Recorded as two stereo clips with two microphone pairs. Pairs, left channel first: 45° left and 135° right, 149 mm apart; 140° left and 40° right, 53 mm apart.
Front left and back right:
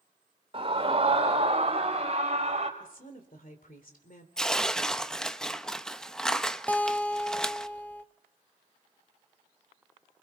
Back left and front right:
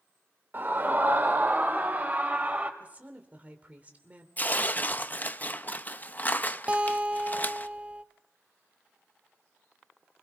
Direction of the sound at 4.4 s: 125° left.